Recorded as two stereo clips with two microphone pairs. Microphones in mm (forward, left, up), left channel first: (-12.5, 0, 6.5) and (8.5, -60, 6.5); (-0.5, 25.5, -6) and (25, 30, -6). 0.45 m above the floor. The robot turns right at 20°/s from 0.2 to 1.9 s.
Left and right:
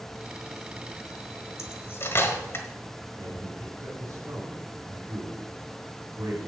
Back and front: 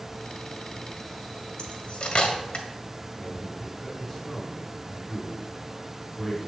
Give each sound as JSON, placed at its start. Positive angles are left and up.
{"t": 1.6, "sound": "cutlery clinking", "azimuth_deg": 150, "distance_m": 1.4}
{"t": 3.2, "sound": "a man speaking", "azimuth_deg": -95, "distance_m": 3.0}